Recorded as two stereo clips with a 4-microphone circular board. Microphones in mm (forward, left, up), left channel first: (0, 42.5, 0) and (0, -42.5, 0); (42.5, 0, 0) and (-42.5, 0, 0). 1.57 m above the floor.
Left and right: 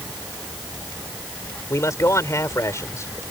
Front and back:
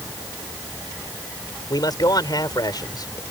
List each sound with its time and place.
1.7 s a man speaking: 35° left